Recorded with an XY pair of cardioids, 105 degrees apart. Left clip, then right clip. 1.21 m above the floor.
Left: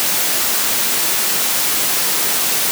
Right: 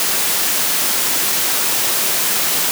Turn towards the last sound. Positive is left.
No sound to turn to.